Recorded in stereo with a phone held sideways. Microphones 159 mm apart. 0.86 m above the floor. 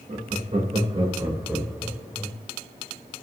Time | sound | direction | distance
0.1 | laughter | 50° right (ahead or behind) | 1.3 m